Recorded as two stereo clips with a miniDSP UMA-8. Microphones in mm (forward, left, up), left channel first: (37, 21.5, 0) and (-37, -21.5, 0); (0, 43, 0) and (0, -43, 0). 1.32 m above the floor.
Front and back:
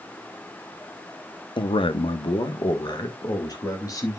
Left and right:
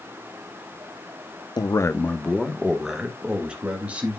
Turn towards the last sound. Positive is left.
turn(degrees=-20)